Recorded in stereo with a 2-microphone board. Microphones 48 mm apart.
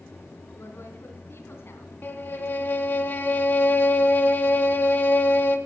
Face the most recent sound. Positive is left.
turn(degrees=45)  # may be behind; listen again after turning